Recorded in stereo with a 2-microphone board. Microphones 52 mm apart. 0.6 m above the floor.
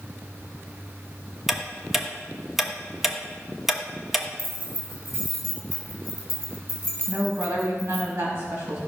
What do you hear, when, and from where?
1.5 s ticking: 5° right (ahead or behind), 1.0 m
4.4 s keys jangling: 35° right (ahead or behind), 4 m
7.1 s a woman speaking: 50° right (ahead or behind), 4.5 m